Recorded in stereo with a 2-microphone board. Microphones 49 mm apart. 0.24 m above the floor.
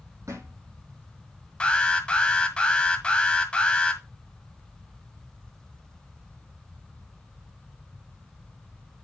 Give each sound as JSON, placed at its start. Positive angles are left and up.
{"t": 0.3, "sound": "a thud", "side_deg": -85, "distance_m": 3.5}
{"t": 1.6, "sound": "an alarm", "side_deg": 20, "distance_m": 1.7}